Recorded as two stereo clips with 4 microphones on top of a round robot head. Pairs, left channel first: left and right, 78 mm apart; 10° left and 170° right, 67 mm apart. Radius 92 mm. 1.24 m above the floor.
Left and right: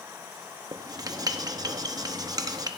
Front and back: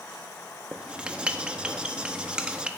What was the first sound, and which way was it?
Writing, 100° right.